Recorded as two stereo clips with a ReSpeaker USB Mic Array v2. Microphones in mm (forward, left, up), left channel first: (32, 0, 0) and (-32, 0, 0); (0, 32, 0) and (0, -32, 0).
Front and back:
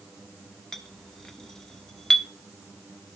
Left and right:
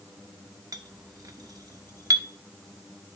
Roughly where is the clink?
Right.